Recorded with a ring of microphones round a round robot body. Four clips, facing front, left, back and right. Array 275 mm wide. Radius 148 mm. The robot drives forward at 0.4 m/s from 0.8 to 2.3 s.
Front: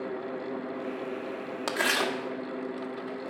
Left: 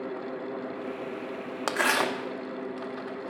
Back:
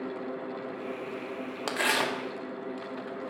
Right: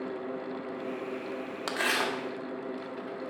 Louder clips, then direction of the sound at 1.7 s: Left 4 dB, even; 90° left.